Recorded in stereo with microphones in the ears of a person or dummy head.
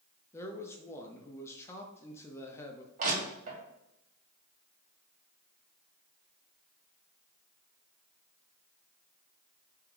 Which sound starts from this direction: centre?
A man speaking, at 0.3 s.